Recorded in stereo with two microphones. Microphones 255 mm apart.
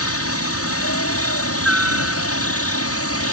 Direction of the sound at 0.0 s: 65° left (ahead or behind).